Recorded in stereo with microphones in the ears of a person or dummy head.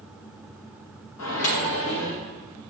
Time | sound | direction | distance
1.2 | a microwave | 75° left (ahead or behind) | 0.8 m